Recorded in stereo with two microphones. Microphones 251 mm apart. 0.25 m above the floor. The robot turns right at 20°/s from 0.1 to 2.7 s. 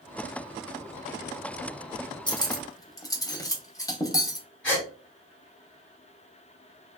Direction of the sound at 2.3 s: 20° left (ahead or behind).